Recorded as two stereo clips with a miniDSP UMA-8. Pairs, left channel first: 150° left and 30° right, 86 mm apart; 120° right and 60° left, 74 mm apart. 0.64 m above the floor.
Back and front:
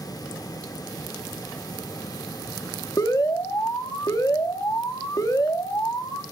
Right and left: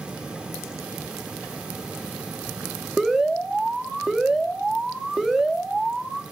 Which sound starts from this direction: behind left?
An alarm, at 3.0 s.